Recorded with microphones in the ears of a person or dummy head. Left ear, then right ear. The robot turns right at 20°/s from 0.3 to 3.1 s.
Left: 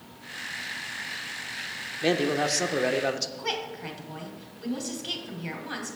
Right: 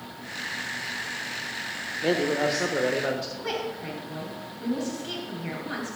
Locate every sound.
2.0 s a man speaking: 75° left (ahead or behind), 1.0 m; by 3.3 s 70° left (ahead or behind), 1.0 m
3.4 s a woman speaking: 30° left (ahead or behind), 2.5 m